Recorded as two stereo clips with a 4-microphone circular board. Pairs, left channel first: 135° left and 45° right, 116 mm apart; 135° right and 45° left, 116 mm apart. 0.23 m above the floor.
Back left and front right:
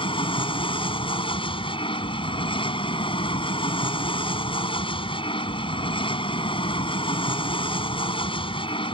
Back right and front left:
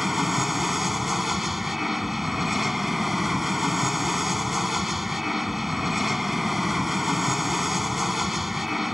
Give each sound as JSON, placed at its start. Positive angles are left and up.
{"t": 0.0, "sound": "an aircraft", "azimuth_deg": 135}